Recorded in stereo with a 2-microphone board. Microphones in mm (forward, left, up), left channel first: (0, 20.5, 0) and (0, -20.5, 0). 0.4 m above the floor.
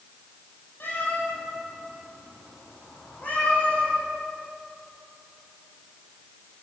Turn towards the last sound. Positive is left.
turn(degrees=40)  # may be behind; listen again after turning